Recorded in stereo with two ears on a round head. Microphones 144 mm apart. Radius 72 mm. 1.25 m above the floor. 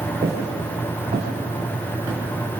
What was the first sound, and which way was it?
Footsteps, 30° right (ahead or behind).